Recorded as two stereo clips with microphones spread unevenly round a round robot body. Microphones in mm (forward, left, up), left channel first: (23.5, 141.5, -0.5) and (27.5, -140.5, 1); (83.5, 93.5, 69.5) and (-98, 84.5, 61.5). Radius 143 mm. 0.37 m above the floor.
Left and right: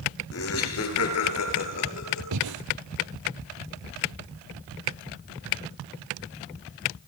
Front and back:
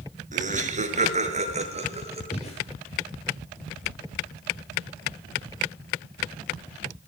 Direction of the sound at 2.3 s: 65° right.